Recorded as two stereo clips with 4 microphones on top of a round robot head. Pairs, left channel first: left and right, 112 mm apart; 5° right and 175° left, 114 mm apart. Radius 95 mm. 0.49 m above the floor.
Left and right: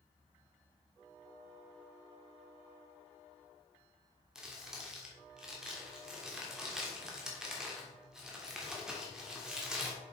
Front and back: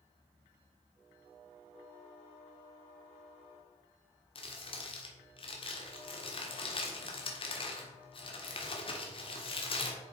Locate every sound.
4.3 s crumpling: 5° right, 1.6 m